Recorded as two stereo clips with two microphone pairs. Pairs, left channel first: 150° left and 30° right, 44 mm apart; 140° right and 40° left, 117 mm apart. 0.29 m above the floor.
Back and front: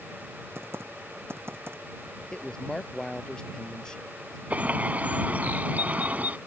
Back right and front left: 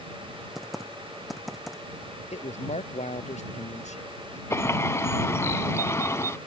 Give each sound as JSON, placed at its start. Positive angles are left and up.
{"t": 0.6, "sound": "typing on a keyboard", "azimuth_deg": -50}
{"t": 2.3, "sound": "a woman speaking", "azimuth_deg": -135}
{"t": 4.5, "sound": "a bird", "azimuth_deg": -75}